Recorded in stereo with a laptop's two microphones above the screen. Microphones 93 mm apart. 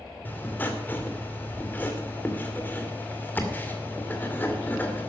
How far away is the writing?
About 2.5 m.